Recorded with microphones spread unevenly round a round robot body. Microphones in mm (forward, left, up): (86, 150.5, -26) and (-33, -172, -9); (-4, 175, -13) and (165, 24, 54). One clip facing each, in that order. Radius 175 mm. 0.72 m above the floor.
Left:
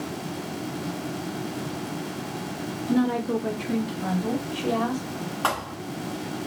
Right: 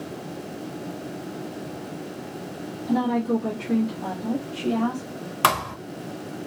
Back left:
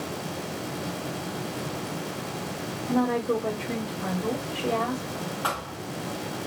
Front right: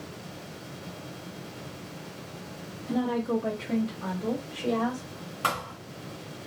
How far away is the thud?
About 0.6 m.